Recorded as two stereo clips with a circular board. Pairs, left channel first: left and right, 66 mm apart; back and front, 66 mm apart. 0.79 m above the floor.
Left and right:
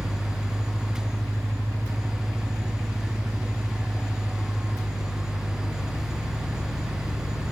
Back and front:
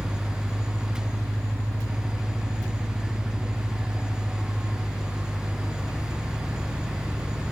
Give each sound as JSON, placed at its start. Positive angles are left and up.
{"t": 0.0, "sound": "an engine running", "azimuth_deg": -70, "distance_m": 0.8}